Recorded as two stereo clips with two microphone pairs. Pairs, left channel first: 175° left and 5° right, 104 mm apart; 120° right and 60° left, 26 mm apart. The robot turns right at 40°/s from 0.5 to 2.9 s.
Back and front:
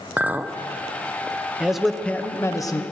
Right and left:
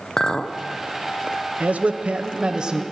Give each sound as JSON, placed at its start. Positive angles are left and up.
{"t": 0.2, "sound": "a clink", "azimuth_deg": -70, "distance_m": 0.6}
{"t": 1.6, "sound": "a man speaking", "azimuth_deg": 75, "distance_m": 0.9}